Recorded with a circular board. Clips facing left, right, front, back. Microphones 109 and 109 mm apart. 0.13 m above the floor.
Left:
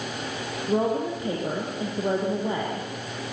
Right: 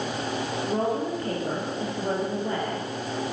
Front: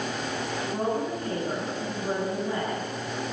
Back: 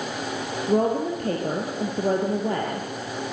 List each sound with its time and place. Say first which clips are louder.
0.7 s a woman speaking: left 4 dB, back 8 dB; 165° left, 4 m